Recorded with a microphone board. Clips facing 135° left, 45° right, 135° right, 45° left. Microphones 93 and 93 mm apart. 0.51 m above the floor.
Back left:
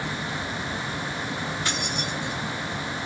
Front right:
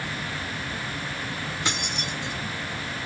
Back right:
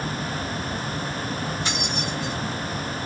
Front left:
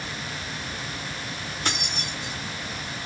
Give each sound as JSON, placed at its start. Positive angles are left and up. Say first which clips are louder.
{"t": 1.6, "sound": "keys jangling", "louder": "back left 1 dB, back right 4 dB", "azimuth_deg": 20, "distance_m": 1.2}